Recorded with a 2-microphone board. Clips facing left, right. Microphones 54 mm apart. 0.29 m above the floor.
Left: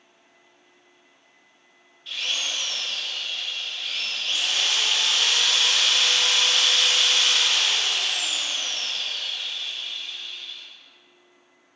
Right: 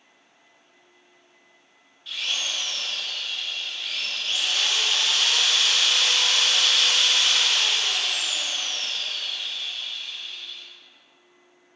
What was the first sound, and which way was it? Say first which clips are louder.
A drill: even; centre (ahead or behind).